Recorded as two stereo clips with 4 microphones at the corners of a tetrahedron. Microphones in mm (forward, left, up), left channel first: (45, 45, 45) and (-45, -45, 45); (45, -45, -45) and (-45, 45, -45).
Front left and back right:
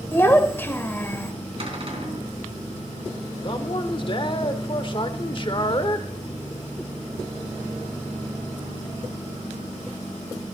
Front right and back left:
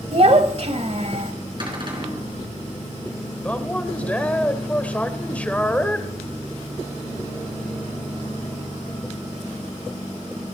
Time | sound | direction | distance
0.1 | a child speaking | 115° left | 1.2 m
1.6 | a cupboard door | 175° right | 3.5 m
3.4 | a man speaking | 25° left | 1.1 m